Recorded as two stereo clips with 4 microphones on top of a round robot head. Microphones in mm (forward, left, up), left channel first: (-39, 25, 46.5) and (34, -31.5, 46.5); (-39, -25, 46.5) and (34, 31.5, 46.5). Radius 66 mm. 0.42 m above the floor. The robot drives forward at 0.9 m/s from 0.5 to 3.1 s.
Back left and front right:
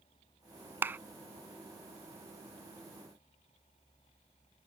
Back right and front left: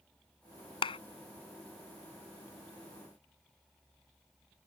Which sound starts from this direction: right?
A clap, at 0.8 s.